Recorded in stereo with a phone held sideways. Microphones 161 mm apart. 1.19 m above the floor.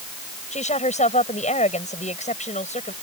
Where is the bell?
No bell in this recording.